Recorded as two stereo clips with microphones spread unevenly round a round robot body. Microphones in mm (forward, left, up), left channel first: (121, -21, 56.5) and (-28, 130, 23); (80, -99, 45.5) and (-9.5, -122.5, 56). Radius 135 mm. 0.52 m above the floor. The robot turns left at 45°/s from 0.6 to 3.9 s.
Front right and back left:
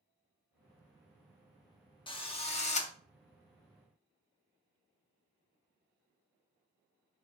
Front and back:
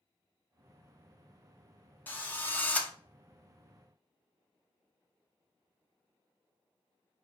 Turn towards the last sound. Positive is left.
turn(degrees=-70)